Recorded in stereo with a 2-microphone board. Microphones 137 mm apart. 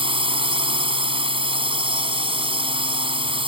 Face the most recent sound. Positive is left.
turn(degrees=-40)  # may be behind; listen again after turning